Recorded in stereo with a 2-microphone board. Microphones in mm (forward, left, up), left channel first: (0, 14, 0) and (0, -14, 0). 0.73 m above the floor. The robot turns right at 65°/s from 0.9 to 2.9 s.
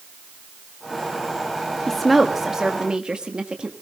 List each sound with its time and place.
1.9 s a woman speaking: 160° left, 1.3 m; by 3.7 s 130° right, 1.3 m